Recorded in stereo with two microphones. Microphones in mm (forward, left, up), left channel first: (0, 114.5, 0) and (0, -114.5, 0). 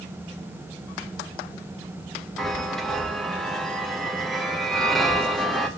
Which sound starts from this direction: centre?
A chime, at 2.4 s.